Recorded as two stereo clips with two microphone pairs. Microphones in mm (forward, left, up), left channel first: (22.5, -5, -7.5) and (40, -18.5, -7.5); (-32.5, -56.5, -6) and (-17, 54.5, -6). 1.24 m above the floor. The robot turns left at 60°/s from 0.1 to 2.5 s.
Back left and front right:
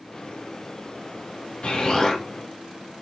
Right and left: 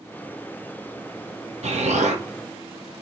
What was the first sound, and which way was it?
An explosion, 100° left.